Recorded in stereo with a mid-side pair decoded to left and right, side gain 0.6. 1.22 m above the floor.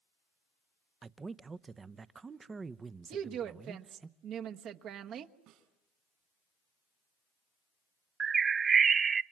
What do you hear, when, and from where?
1.0 s a man speaking: 25° right, 0.8 m
3.1 s a woman speaking: 55° right, 1.3 m
5.5 s a snare drum: 70° right, 4.5 m
8.2 s a bird: 35° right, 0.8 m